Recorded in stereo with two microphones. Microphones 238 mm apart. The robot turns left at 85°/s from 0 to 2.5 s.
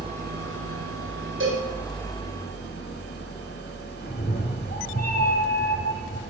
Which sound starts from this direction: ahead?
An engine running, at 0.0 s.